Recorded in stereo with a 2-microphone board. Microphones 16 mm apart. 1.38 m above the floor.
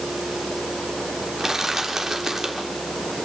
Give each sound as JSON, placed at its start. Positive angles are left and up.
{"t": 1.4, "sound": "crushing", "side_deg": -30, "distance_m": 3.5}